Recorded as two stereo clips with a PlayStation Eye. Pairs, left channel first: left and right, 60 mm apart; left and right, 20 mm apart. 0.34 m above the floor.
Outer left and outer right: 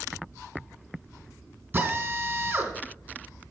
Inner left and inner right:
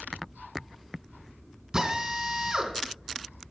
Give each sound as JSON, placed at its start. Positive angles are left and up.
{"t": 1.7, "sound": "a drill", "side_deg": -30, "distance_m": 2.5}